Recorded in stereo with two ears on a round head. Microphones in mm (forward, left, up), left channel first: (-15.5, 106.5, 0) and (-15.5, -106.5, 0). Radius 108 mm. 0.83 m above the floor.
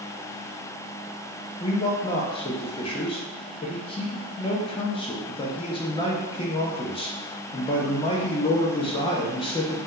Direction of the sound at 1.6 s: 20° left (ahead or behind).